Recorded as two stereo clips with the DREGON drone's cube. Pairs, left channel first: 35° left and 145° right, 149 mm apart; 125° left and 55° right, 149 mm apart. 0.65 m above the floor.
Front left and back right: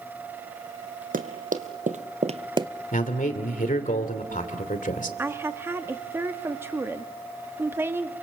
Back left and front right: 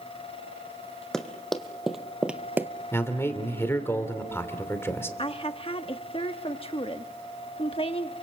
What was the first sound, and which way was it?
Running footsteps, 150° right.